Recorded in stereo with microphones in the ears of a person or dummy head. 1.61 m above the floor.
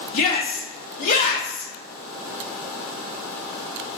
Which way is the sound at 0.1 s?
45° left (ahead or behind).